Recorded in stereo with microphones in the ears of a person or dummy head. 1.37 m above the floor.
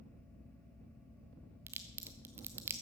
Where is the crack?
10° right (ahead or behind), 1.0 m.